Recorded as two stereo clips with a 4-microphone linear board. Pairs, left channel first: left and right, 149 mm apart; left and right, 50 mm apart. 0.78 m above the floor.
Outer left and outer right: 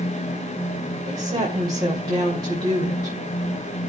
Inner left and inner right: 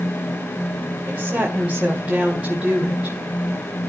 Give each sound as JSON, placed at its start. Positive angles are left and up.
{"t": 1.1, "sound": "a woman speaking", "side_deg": -30, "distance_m": 2.5}